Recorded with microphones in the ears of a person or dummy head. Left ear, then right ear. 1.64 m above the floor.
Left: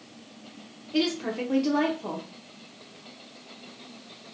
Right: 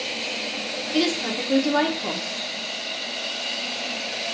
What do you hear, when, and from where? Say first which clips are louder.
0.9 s a woman speaking: right 3 dB; 5° right (ahead or behind), 0.6 m